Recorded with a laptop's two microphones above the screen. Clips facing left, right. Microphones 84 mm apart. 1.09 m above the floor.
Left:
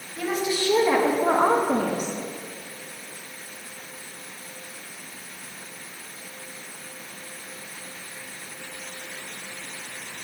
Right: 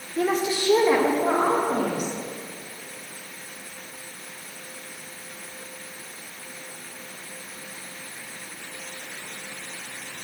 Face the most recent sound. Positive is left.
turn(degrees=45)  # may be behind; listen again after turning